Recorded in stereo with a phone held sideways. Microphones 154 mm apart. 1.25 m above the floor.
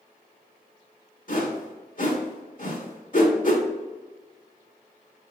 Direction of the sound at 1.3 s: 60° left (ahead or behind).